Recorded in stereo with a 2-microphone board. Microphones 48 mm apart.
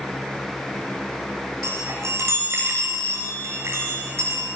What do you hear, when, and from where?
1.6 s a chime: 75° right (ahead or behind), 9.5 m